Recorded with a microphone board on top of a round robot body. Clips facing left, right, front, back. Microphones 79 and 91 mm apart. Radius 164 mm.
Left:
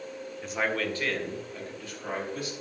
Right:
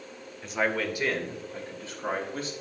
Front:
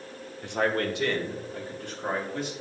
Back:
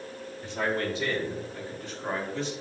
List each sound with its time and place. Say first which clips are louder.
0.4 s a man speaking: right 2 dB, front 3 dB; straight ahead, 1.8 m; by 2.5 s 35° right, 4 m